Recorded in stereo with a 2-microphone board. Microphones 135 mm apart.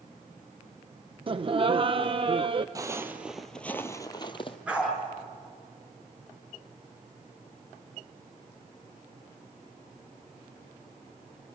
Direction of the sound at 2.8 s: 25° right (ahead or behind).